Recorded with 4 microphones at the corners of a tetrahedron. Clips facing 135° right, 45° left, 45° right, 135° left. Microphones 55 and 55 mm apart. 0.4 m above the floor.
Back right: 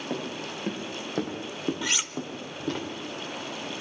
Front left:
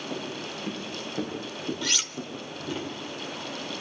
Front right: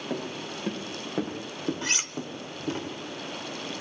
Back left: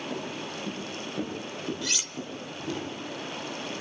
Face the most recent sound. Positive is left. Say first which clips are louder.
# back right 1 dB, front right 3 dB
turn(degrees=-70)